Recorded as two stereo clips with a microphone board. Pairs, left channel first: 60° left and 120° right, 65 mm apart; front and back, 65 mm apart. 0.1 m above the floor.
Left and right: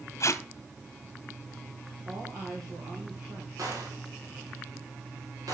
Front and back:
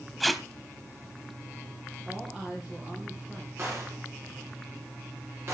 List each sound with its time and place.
0.2 s tape being pulled: 90° left, 0.9 m
2.0 s a woman speaking: 110° right, 3.5 m
3.6 s a gunshot: 135° right, 6 m